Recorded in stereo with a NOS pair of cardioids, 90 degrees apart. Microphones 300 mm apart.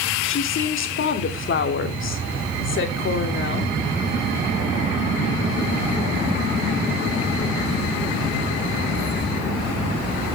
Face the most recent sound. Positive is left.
turn(degrees=40)